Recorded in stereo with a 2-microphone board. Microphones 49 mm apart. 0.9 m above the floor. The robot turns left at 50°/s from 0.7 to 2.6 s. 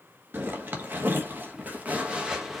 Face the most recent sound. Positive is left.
turn(degrees=-5)  # may be behind; listen again after turning